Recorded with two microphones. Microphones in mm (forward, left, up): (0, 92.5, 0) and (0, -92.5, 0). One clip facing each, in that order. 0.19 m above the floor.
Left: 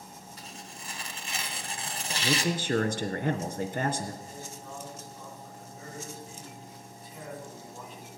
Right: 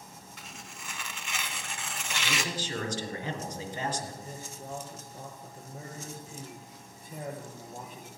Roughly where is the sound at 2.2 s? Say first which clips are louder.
Left 7 dB; left.